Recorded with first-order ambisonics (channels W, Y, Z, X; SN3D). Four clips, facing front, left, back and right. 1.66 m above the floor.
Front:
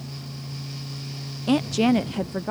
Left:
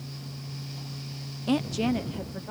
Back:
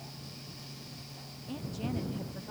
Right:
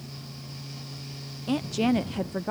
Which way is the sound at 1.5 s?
10° left.